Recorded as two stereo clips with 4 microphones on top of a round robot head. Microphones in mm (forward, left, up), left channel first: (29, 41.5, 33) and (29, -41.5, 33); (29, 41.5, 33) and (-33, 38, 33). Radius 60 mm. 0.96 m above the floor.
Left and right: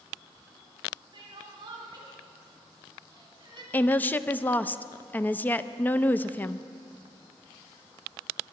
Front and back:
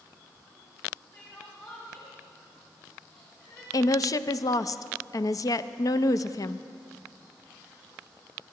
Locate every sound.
1.1 s crying: 60° right, 2.5 m
3.7 s a woman speaking: 20° left, 0.6 m